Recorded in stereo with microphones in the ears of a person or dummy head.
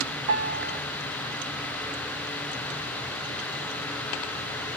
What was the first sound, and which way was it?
A piano, 65° right (ahead or behind).